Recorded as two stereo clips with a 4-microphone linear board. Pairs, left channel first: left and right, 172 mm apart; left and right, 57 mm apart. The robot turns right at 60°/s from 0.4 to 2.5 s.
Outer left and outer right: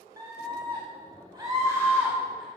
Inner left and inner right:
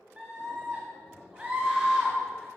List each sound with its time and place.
0.2 s a scream: 25° right (ahead or behind), 1.3 m; by 2.5 s centre (ahead or behind), 1.3 m